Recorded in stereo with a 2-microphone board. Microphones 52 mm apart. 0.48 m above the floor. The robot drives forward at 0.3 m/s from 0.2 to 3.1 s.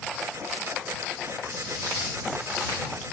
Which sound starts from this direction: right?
Footsteps, at 1.5 s.